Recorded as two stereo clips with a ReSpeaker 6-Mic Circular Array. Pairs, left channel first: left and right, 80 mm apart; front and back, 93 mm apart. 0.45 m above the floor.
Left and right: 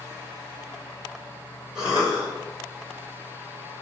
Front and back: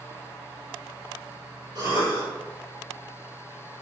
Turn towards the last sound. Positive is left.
turn(degrees=-170)